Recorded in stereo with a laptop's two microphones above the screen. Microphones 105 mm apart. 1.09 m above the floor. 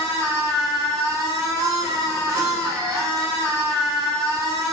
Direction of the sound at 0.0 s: 35° right (ahead or behind).